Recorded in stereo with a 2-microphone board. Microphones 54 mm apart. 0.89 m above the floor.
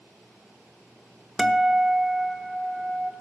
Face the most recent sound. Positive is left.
turn(degrees=-5)  # may be behind; listen again after turning